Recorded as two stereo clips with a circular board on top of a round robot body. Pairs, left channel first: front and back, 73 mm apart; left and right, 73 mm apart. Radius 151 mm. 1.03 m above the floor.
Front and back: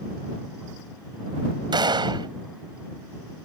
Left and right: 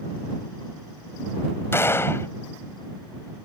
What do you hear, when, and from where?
1.7 s a gunshot: 150° left